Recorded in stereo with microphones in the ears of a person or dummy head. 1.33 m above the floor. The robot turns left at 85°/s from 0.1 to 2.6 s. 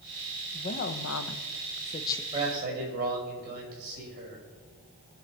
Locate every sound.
0.5 s a woman speaking: 155° left, 1.0 m; by 2.2 s 10° left, 1.0 m
2.3 s a man speaking: 20° right (ahead or behind), 5.5 m; by 4.4 s 45° right (ahead or behind), 5.5 m